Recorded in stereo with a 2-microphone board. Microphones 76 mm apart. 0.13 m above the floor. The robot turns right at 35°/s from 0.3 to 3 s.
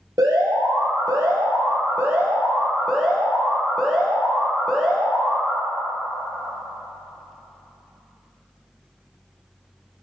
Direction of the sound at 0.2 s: 100° right.